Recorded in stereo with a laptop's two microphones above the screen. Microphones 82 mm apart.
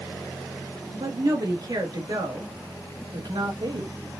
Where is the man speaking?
65° right (ahead or behind), 2.5 m.